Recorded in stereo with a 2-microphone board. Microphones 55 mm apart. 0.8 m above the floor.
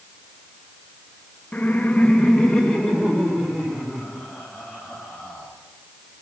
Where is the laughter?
30° left (ahead or behind), 0.5 m; by 5.5 s 5° left (ahead or behind), 6 m.